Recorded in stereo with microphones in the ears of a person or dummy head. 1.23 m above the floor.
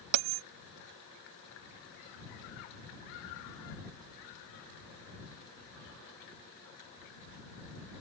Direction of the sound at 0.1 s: 70° right (ahead or behind).